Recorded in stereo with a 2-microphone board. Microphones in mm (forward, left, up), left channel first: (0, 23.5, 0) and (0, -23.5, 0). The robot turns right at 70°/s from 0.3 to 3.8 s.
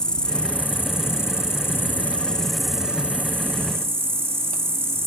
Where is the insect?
20° left; by 5.1 s 95° right.